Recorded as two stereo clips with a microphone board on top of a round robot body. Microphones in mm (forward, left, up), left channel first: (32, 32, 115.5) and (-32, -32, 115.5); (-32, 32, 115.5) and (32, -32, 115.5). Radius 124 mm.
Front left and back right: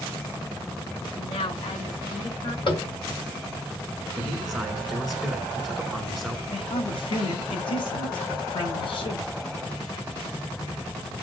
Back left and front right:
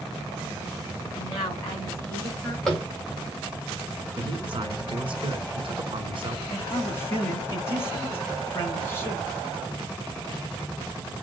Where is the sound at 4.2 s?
45° right, 2.5 m.